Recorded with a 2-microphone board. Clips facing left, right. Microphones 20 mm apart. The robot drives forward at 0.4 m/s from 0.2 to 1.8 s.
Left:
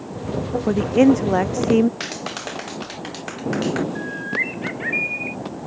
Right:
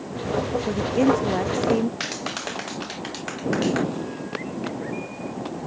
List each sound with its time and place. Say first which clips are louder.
0.7 s a woman speaking: left 6 dB; 25° left (ahead or behind); by 1.9 s 30° left (ahead or behind)
2.0 s a clap: even; centre (ahead or behind)
4.0 s a bird: left 7 dB; 80° left